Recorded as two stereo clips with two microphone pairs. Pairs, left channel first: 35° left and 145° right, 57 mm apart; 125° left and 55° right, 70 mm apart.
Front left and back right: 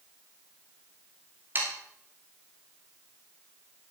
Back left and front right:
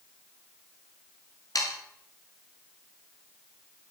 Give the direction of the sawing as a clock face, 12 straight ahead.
7 o'clock.